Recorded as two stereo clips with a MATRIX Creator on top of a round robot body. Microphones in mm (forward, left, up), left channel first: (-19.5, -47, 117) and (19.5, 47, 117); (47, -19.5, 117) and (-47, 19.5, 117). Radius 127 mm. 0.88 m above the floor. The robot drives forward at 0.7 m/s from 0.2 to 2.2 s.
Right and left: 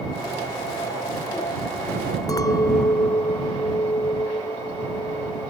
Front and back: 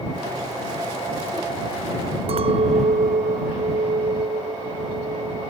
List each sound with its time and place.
2.3 s a clink: 170° right